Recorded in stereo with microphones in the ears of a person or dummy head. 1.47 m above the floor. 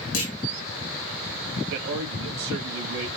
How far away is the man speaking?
About 2 m.